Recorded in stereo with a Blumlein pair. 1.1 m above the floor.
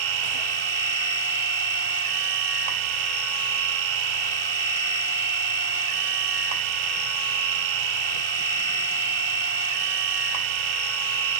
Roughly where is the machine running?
Ahead right.